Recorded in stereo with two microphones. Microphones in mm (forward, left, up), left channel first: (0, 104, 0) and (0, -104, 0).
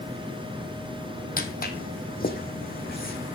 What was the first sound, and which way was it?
Footsteps, 45° left (ahead or behind).